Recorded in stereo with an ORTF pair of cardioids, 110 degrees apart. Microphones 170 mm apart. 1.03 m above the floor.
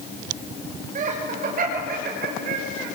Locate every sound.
0.9 s laughter: 50° right, 4.5 m; by 2.9 s 70° right, 5.5 m